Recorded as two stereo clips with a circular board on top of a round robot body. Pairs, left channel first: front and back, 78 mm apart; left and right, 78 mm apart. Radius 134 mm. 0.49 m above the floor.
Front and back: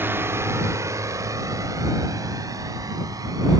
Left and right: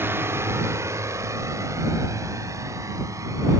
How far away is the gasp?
No gasp in this recording.